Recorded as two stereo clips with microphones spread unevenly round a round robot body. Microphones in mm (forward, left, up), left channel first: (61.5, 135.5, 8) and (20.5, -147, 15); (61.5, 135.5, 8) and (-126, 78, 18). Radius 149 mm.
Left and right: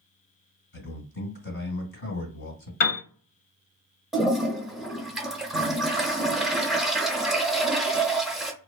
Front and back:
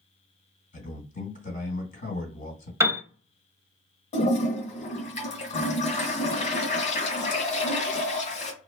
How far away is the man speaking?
About 2 m.